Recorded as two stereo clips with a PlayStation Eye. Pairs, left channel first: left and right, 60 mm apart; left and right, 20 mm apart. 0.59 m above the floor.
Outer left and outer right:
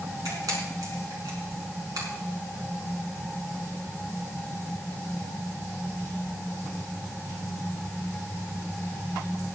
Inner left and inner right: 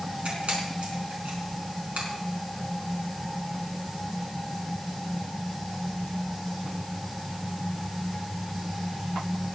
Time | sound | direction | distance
0.2 | a camera shutter | 85° right | 4.5 m